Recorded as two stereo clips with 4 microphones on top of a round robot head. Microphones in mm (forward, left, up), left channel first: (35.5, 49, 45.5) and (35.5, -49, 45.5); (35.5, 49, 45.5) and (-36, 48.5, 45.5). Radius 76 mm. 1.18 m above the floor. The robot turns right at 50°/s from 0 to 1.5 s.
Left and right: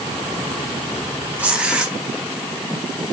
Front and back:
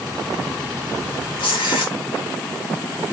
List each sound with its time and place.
1.4 s tearing paper: 15° right, 0.9 m; by 1.9 s 10° right, 0.9 m